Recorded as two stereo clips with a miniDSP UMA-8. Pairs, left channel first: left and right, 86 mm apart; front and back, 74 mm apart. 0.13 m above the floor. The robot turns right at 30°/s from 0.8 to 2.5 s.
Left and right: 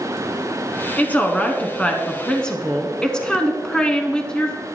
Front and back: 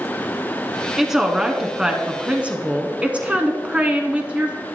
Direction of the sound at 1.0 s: 105° left.